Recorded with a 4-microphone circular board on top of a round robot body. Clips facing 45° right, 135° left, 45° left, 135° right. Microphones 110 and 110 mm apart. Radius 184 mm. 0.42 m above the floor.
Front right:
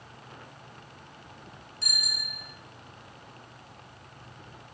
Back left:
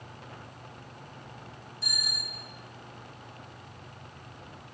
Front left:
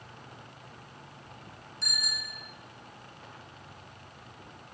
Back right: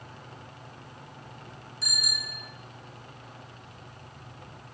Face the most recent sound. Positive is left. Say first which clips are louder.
# front right 1 dB, even
turn(degrees=-50)